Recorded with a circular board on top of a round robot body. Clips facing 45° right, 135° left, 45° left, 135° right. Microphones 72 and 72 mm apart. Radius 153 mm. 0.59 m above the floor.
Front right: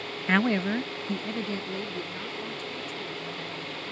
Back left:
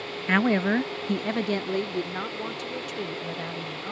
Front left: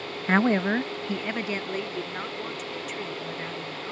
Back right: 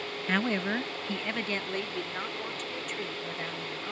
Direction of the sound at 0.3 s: 40° left.